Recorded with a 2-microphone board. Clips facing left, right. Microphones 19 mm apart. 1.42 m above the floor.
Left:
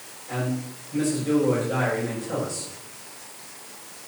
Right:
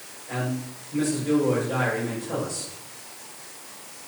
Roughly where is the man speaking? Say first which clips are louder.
Left 1 dB; centre.